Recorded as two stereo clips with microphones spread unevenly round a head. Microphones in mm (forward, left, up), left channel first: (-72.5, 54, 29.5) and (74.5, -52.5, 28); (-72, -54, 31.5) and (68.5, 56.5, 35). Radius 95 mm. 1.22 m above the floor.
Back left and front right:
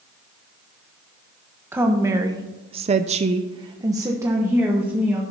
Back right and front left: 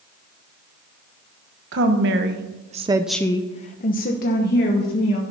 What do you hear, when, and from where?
1.7 s a woman speaking: 40° left, 1.2 m; by 5.2 s 115° right, 1.9 m